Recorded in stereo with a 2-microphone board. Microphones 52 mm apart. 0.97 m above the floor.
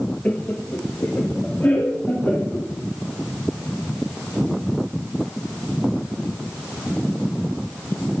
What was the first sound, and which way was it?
Laughter, 25° left (ahead or behind).